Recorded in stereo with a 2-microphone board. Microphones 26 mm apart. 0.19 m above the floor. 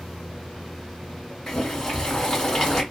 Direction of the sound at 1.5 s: 20° left (ahead or behind).